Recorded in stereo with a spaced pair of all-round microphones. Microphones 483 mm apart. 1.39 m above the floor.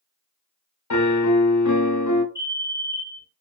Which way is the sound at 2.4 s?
5° right (ahead or behind).